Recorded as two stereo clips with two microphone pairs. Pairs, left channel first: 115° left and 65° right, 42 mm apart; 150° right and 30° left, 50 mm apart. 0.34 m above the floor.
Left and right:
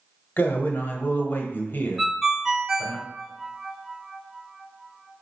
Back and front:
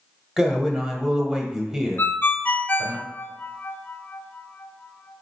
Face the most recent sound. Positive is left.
turn(degrees=-140)